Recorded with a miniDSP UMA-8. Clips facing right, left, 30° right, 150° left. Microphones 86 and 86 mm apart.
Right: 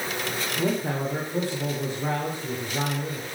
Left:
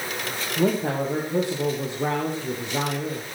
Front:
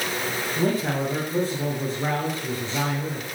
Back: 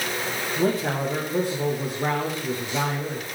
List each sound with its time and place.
0.6 s a man speaking: 75° left, 5 m